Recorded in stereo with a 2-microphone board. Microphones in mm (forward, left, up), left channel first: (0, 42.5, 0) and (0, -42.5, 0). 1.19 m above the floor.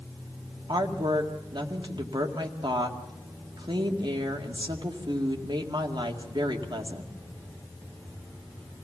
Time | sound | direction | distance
0.7 | a woman speaking | 70° right (ahead or behind) | 2.0 m